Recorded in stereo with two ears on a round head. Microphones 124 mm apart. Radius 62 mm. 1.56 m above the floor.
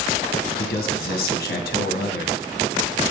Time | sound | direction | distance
0.6 | a man speaking | 80° left | 1.7 m